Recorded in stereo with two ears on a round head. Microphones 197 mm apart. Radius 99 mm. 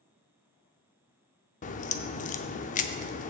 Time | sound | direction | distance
1.6 | a crack | 35° left (ahead or behind) | 0.5 m